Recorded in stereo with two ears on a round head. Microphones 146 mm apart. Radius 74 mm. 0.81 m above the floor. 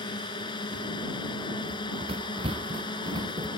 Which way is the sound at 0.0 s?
30° left (ahead or behind).